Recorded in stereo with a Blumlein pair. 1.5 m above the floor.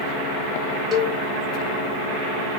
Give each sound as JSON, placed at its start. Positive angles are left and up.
{"t": 0.9, "sound": "a cowbell", "azimuth_deg": 20, "distance_m": 0.7}